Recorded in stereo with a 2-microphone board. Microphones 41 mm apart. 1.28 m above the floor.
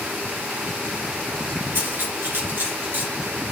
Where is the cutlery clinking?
50° right (ahead or behind), 4 m.